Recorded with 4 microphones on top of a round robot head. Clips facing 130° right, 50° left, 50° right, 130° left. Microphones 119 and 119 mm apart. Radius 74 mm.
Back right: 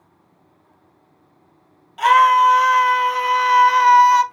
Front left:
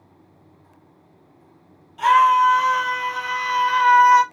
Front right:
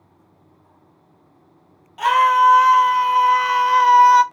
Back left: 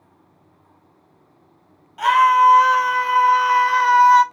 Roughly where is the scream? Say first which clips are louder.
Back right 2 dB, back left 1 dB; behind right.